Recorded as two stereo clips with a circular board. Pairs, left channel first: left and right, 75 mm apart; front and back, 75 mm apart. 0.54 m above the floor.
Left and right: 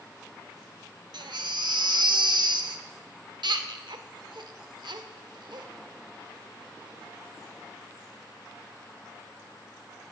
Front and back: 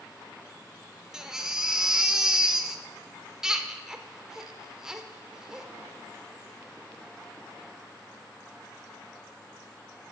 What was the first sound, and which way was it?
A baby crying, 100° right.